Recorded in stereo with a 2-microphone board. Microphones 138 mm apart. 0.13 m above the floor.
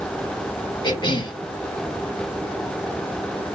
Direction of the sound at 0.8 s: 35° left (ahead or behind).